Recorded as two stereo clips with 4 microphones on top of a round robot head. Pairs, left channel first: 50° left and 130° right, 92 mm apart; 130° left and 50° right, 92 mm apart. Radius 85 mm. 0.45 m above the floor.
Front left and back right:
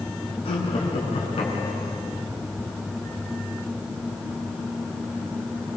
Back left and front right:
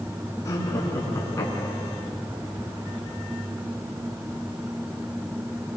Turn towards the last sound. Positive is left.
turn(degrees=70)